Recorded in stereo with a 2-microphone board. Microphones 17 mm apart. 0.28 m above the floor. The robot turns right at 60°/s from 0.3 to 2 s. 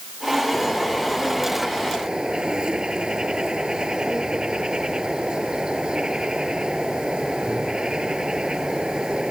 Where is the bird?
145° left; by 9.3 s 125° right.